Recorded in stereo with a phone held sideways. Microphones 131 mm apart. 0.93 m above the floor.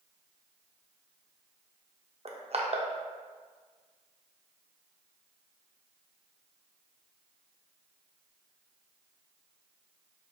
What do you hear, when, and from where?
2.2 s crushing: 50° right (ahead or behind), 0.6 m